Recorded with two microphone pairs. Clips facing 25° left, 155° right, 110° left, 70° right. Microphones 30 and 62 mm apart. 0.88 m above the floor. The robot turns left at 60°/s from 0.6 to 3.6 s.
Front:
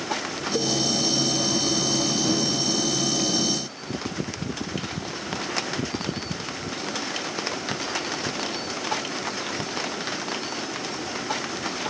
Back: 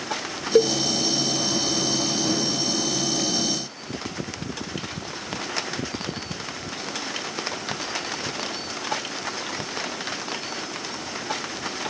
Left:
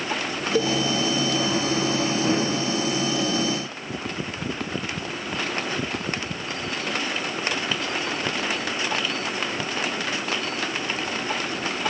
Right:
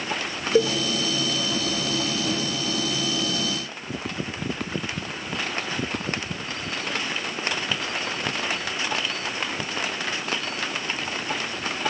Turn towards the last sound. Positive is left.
turn(degrees=45)